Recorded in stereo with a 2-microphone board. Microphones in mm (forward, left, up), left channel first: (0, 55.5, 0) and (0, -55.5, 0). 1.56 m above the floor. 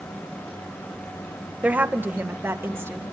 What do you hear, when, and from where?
1.6 s a woman speaking: 15° right (ahead or behind), 1.2 m; by 3.0 s 25° right (ahead or behind), 3 m